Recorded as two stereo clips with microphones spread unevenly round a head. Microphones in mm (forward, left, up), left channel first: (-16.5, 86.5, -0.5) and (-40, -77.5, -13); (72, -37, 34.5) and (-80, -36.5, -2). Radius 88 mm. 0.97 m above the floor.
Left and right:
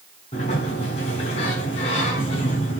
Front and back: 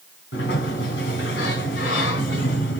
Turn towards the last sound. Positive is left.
turn(degrees=25)